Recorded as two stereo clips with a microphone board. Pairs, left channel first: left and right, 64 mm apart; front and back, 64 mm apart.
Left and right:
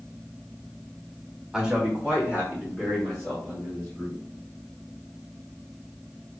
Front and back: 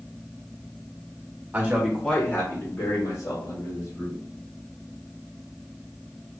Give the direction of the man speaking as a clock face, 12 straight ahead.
5 o'clock.